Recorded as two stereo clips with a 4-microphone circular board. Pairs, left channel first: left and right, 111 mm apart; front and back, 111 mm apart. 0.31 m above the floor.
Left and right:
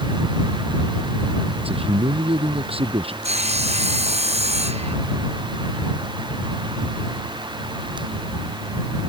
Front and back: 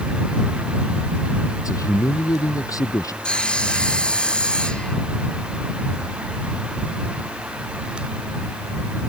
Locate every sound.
1.6 s a man speaking: 60° right
3.2 s sawing: 80° right